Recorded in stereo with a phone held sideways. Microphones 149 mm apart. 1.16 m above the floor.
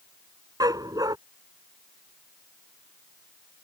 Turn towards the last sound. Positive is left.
turn(degrees=-25)  # may be behind; listen again after turning